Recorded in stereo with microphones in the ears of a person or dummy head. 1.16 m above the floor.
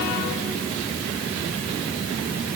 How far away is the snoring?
I don't hear snoring.